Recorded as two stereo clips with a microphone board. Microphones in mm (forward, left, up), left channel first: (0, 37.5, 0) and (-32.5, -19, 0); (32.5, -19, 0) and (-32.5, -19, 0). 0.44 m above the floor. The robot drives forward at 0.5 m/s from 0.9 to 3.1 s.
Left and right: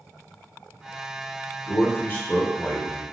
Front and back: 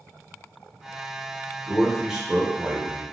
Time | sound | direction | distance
1.7 | a man speaking | 80° left | 1.0 m